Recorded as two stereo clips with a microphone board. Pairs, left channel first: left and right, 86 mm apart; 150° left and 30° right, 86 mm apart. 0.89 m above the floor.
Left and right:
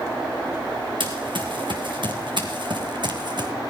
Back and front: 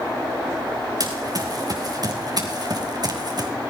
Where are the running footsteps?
70° right, 4.5 m; by 3.5 s 60° right, 3 m.